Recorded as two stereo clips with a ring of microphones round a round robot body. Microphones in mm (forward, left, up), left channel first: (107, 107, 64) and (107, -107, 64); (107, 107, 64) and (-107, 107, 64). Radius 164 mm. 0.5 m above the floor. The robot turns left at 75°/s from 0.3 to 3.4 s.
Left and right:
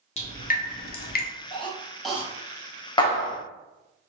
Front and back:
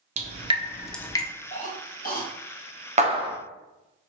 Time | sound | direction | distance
0.2 | dripping | 135° left | 0.6 m
1.5 | a cough | 45° left | 1.2 m
3.0 | a clap | 145° left | 0.6 m